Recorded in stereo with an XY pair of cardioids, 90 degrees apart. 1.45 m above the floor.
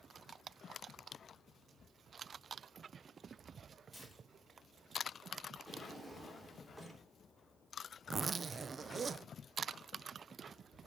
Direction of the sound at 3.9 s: 10° right.